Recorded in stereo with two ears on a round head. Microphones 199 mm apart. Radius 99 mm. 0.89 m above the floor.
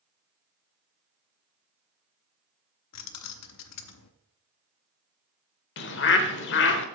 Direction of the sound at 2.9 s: 85° left.